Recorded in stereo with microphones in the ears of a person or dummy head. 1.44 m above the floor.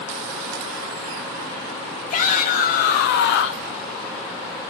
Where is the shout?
50° left (ahead or behind), 2.5 m; by 3.7 s 80° left, 1.2 m.